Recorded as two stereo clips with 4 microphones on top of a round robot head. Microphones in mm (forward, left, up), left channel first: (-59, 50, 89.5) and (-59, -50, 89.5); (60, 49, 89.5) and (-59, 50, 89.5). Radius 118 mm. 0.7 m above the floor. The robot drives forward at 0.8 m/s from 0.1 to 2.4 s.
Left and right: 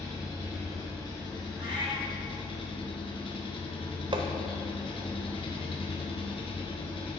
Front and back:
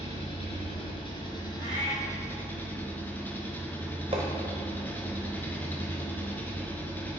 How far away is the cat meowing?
About 2.5 m.